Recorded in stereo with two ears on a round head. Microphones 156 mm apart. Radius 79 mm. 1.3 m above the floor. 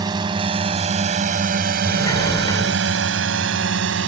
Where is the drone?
25° right (ahead or behind); by 4.1 s 85° right.